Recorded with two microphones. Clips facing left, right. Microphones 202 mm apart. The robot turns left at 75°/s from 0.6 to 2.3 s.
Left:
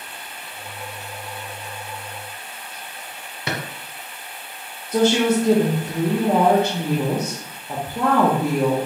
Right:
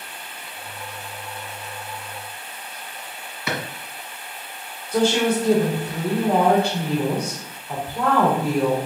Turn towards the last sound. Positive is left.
turn(degrees=20)  # may be behind; listen again after turning